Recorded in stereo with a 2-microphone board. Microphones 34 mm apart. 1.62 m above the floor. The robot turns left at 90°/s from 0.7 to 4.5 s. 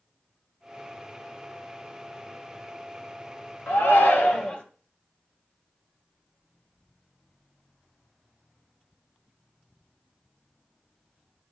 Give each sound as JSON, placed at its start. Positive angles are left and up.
{"t": 3.7, "sound": "a shout", "azimuth_deg": 115, "distance_m": 1.5}